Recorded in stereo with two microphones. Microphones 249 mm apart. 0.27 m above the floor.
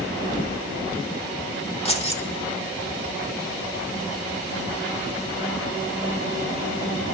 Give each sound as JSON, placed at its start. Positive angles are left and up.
{"t": 1.9, "sound": "keys jangling", "side_deg": 25, "distance_m": 0.9}